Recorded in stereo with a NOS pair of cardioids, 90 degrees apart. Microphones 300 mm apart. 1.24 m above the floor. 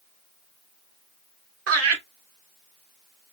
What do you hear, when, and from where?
1.7 s laughter: 50° right, 1.5 m